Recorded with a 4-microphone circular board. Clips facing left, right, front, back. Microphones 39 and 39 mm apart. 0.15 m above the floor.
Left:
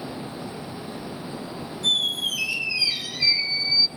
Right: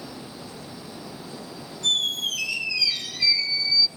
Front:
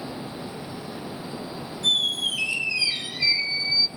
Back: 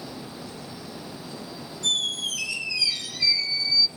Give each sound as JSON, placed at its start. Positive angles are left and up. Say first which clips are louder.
{"t": 1.8, "sound": "a squeak", "louder": "left 1 dB, front 3 dB", "azimuth_deg": 15, "distance_m": 0.9}